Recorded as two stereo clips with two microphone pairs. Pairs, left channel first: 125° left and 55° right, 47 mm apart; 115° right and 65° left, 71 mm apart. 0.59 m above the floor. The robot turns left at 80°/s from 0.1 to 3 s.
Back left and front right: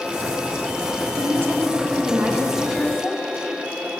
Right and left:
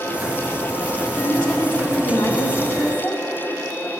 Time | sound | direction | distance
1.2 | a woman speaking | 30° right | 1.3 m